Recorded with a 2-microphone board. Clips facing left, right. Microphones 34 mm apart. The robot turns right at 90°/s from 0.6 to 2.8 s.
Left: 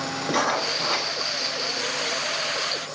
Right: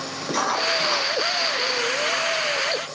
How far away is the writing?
About 3.5 m.